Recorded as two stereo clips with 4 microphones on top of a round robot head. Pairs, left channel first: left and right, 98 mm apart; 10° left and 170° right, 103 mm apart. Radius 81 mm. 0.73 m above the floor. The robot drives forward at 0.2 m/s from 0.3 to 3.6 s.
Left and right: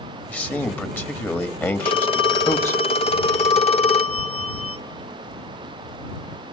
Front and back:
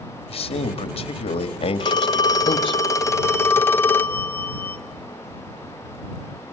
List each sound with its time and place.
0.3 s a man speaking: 20° left, 1.4 m; by 2.8 s 30° left, 1.0 m
1.8 s a phone ringing: 55° left, 1.0 m; by 4.8 s 80° left, 0.8 m